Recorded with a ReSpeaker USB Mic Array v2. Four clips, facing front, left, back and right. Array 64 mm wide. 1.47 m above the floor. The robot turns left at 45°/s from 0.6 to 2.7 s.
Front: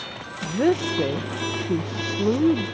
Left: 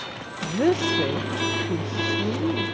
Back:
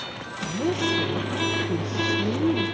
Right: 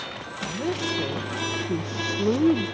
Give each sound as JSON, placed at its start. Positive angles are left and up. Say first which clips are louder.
{"t": 0.4, "sound": "a woman speaking", "louder": "left 7 dB, front 4 dB", "azimuth_deg": 35}